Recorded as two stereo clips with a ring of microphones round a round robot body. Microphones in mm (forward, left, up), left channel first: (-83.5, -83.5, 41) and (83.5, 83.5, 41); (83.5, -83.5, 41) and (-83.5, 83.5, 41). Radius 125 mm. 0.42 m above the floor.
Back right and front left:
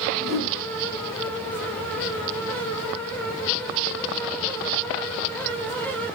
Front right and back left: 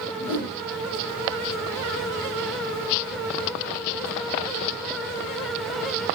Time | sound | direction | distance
0.2 | a whoosh | 85° right | 3 m